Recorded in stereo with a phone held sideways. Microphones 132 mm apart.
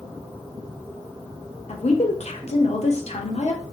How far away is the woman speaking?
About 0.9 m.